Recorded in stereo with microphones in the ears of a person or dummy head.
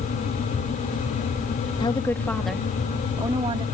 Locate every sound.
1.8 s a woman speaking: 20° left (ahead or behind); by 3.6 s 30° right (ahead or behind)